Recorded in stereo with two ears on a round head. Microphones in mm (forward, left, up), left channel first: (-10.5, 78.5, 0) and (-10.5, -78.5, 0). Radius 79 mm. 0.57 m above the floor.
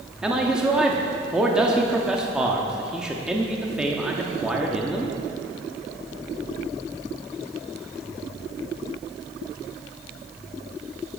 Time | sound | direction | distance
0.2 | a man speaking | 5° right (ahead or behind) | 0.8 m